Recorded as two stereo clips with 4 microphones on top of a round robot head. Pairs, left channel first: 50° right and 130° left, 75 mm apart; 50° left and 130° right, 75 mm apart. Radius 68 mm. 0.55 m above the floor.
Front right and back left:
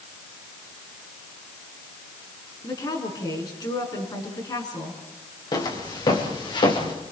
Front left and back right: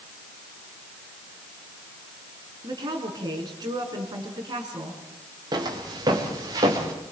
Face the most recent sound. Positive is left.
turn(degrees=-80)